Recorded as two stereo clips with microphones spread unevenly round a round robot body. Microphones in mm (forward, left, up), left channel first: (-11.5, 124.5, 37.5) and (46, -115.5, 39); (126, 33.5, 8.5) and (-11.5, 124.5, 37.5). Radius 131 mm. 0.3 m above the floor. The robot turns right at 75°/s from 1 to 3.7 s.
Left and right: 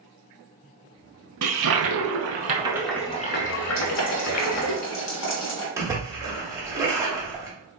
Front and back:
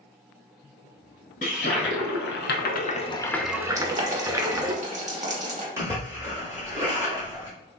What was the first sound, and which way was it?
A toilet flushing, 95° right.